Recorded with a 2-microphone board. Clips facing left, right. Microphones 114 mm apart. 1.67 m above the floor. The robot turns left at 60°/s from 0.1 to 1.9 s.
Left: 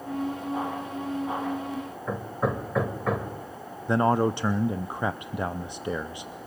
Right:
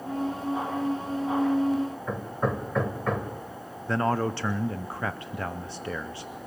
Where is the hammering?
5° left (ahead or behind), 1.5 m.